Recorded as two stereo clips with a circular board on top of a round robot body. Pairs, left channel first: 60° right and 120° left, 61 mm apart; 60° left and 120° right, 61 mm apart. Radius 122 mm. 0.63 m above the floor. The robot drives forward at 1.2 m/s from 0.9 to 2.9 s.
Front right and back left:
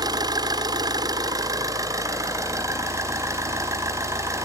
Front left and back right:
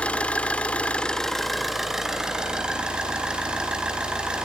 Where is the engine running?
130° left, 1.4 m; by 4.5 s 165° left, 3.5 m.